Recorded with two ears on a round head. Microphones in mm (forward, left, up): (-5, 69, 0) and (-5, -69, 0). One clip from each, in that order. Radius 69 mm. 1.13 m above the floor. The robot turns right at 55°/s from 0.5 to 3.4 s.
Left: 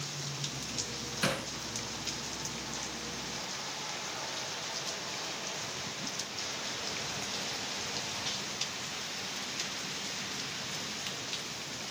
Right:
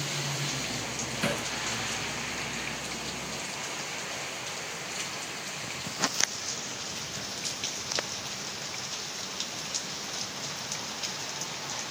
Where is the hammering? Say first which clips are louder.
Right 1 dB; 30° left (ahead or behind), 3.5 m; by 1.5 s 15° left (ahead or behind), 3.5 m.